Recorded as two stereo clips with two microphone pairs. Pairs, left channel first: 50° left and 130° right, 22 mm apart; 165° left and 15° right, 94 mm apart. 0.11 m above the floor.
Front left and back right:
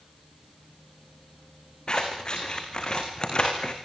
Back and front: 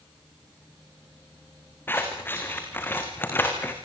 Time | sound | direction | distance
1.9 | scissors | 95° left | 4.5 m